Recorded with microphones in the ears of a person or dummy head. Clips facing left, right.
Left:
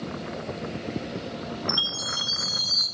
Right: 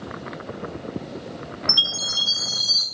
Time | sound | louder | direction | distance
1.7 | a chime | left 1 dB | 20° right (ahead or behind) | 4 m